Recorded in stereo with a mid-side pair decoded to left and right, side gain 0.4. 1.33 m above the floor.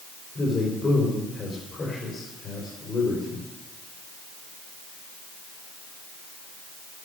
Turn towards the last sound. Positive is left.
turn(degrees=45)